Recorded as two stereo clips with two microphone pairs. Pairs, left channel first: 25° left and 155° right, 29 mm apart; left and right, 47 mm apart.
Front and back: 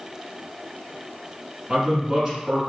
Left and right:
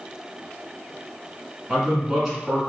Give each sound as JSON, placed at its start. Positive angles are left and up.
{"t": 1.7, "sound": "a man speaking", "azimuth_deg": -155, "distance_m": 1.1}